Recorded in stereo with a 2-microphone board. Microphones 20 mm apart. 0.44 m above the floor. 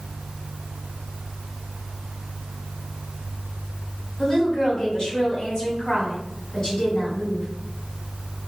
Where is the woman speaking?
40° left (ahead or behind), 1.7 m.